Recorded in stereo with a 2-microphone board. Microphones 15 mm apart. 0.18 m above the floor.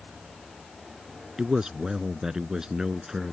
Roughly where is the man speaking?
Right.